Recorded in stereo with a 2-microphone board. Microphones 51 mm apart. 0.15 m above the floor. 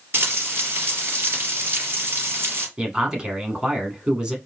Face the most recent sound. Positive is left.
turn(degrees=-20)  # may be behind; listen again after turning